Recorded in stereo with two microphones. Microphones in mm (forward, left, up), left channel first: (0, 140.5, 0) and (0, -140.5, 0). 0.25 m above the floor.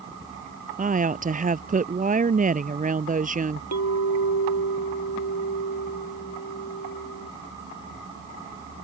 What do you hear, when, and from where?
0.8 s a woman speaking: 25° right (ahead or behind)
3.7 s a clink: 65° left (ahead or behind)